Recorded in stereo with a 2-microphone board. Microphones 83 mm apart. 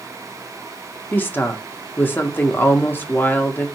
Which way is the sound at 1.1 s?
25° left (ahead or behind).